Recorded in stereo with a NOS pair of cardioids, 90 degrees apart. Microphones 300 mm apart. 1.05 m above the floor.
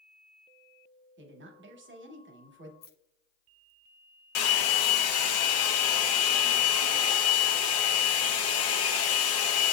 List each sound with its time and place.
1.2 s a woman speaking: 40° right, 1.0 m
2.8 s keys jangling: 35° left, 0.5 m
4.3 s a hair dryer: 60° left, 0.6 m